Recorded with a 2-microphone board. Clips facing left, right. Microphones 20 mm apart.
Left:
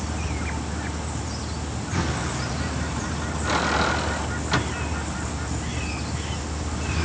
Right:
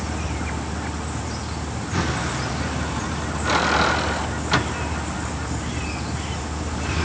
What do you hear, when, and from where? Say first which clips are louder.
0.0 s a vehicle: right 2 dB; 15° right (ahead or behind)